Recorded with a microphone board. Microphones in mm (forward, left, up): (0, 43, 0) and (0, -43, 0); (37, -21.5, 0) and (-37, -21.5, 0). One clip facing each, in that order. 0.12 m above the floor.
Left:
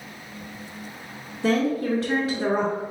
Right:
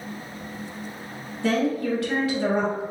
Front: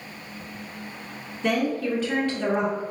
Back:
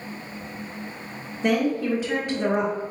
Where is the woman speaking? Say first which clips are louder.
Left 1 dB, back 2 dB; 115° left, 1.3 m.